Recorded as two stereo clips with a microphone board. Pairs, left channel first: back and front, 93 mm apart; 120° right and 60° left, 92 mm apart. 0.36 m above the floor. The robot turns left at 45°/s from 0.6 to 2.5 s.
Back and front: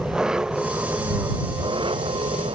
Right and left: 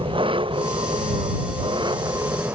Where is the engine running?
80° left; by 2.6 s 5° right.